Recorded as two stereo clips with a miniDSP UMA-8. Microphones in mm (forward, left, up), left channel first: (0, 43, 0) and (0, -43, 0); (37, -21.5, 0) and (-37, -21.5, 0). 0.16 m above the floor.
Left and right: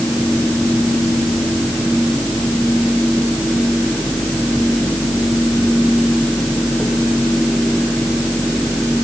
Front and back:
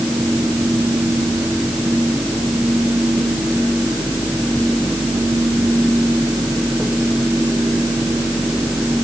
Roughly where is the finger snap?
No finger snap in this recording.